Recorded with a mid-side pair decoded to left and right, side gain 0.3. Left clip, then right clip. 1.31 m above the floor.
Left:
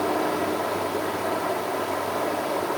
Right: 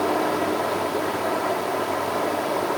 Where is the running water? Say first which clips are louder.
Right 2 dB; 25° right, 3 m.